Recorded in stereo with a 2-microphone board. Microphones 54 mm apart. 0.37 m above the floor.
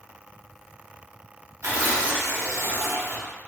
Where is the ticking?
No ticking in this recording.